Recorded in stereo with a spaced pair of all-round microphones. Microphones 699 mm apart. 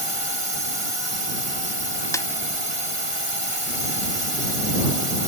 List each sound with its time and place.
0.0 s a drone: 45° right (ahead or behind)
2.1 s a snare drum: 5° left (ahead or behind)